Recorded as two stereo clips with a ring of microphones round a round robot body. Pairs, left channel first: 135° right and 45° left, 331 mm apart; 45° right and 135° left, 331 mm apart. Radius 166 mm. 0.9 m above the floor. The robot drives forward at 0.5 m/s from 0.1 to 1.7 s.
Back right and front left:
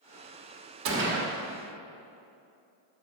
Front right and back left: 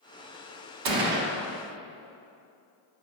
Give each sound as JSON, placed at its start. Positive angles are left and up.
{"t": 0.8, "sound": "a gunshot", "azimuth_deg": 100, "distance_m": 1.1}